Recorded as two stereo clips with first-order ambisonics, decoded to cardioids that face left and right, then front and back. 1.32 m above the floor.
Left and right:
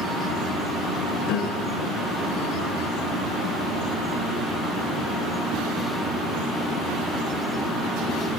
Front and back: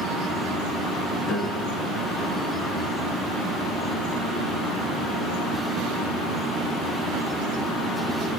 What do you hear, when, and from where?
1.2 s a piano: 65° left, 4.5 m